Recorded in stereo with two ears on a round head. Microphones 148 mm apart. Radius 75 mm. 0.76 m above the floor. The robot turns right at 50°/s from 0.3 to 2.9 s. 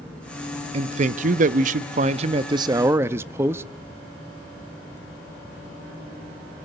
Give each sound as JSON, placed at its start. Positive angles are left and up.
{"t": 0.7, "sound": "a man speaking", "azimuth_deg": -125, "distance_m": 0.6}